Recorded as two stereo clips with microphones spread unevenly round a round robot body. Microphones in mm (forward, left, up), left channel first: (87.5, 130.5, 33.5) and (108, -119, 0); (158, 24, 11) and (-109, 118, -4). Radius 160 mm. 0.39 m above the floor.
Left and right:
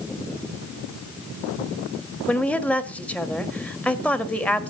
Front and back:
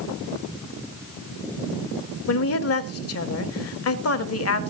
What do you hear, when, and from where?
2.3 s a woman speaking: 5° left, 2 m